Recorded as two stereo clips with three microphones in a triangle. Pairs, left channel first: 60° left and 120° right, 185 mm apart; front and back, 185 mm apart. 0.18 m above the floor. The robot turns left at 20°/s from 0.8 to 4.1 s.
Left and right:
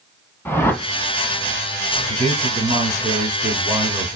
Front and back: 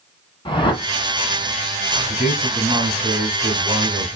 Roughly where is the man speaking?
Behind right.